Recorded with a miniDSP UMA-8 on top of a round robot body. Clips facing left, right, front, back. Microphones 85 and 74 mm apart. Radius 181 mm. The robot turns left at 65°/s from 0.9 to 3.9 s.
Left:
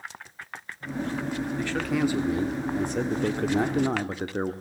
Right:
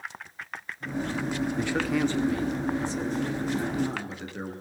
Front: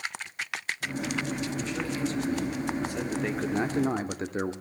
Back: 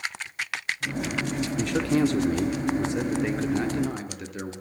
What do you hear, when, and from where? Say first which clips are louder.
1.6 s a man speaking: even, back 8 dB; 155° right, 1.6 m; by 4.5 s 50° left, 1.6 m